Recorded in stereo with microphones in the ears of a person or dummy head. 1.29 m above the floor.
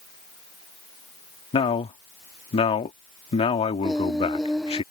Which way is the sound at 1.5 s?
30° left (ahead or behind).